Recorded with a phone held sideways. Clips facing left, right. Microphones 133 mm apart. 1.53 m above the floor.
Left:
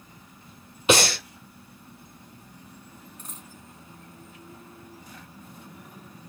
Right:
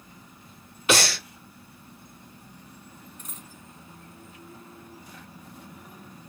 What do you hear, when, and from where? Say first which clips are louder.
0.9 s breathing: left 3 dB; 20° left (ahead or behind), 1.2 m
3.2 s a dropped coin: left 1 dB; 30° left (ahead or behind), 1.1 m